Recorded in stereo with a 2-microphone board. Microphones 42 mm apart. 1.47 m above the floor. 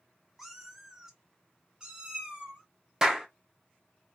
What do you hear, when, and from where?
0.4 s a cat meowing: 5° right (ahead or behind), 0.7 m; by 2.6 s 20° right (ahead or behind), 1.0 m
3.0 s a clap: 15° right (ahead or behind), 0.7 m